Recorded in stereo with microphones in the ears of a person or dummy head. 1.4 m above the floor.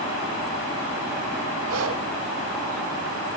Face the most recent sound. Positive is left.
turn(degrees=-80)